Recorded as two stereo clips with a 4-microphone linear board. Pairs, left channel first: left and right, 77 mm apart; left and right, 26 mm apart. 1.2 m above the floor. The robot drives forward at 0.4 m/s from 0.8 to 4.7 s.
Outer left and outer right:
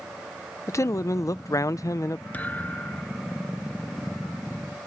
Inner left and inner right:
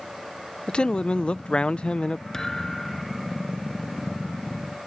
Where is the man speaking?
45° left (ahead or behind).